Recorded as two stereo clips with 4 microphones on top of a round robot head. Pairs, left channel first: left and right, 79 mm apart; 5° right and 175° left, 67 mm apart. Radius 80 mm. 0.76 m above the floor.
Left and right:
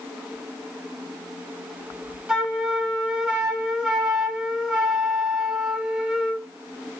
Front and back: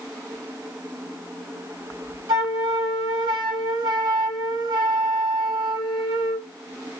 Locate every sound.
2.3 s a flute: 170° right, 2.5 m